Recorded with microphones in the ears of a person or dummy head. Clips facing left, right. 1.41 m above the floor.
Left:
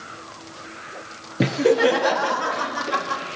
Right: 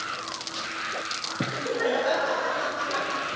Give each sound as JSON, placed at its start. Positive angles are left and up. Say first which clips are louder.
{"t": 1.4, "sound": "laughter", "louder": "left 10 dB", "side_deg": 60, "distance_m": 0.5}